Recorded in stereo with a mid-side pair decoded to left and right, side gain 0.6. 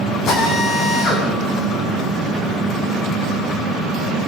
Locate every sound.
0.3 s a drill: 55° left, 9.5 m